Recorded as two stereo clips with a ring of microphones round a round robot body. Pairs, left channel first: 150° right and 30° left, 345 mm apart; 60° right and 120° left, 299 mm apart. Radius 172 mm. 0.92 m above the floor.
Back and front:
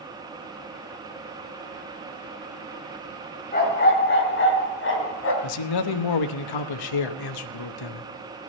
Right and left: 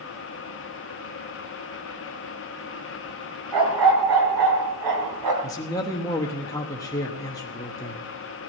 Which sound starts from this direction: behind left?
A dog barking, at 3.5 s.